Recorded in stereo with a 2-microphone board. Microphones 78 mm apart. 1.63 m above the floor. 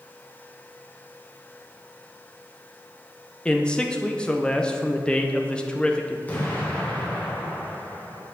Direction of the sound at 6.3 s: 20° left (ahead or behind).